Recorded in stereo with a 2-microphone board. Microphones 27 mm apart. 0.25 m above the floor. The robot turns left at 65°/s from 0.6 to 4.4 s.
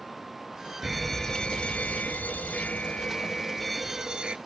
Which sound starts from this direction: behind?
A fire alarm, at 0.8 s.